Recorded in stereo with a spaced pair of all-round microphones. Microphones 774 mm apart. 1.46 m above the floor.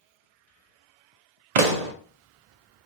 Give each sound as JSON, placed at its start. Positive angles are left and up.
{"t": 1.6, "sound": "a pop", "side_deg": -60, "distance_m": 0.6}